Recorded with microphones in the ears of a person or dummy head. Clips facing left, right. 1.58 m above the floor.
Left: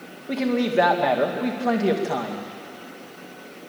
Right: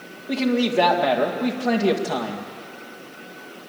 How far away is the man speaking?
About 2.0 m.